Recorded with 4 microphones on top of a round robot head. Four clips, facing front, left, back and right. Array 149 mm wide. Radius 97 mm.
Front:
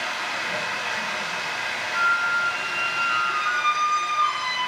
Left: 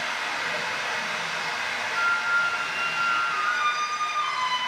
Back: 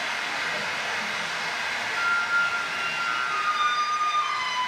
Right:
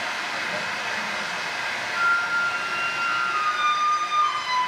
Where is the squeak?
Straight ahead, 0.8 m.